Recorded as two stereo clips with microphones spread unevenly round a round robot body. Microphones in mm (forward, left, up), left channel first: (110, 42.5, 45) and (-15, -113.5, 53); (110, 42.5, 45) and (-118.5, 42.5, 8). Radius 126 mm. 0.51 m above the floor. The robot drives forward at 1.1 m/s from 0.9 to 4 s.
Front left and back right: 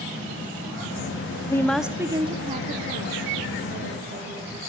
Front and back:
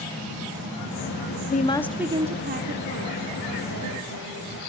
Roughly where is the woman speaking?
Ahead.